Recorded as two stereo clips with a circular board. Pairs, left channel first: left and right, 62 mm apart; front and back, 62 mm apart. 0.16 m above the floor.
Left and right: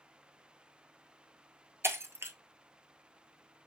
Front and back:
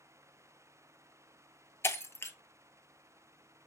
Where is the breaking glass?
45° right, 0.6 m.